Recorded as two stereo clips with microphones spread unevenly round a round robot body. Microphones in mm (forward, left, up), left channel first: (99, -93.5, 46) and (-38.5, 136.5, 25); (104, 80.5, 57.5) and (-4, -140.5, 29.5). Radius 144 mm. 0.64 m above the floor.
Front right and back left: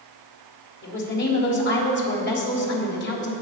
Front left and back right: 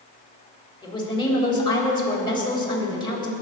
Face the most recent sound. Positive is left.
turn(degrees=-10)